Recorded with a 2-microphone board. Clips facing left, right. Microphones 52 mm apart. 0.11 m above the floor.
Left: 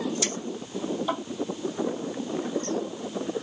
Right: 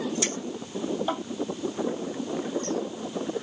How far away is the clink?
About 2.5 m.